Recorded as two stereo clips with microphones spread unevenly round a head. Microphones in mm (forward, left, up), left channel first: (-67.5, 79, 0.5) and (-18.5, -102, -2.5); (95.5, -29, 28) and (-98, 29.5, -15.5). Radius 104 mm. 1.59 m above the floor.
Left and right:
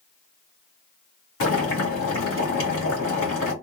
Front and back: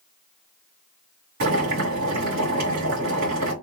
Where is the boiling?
120° left, 2.5 m.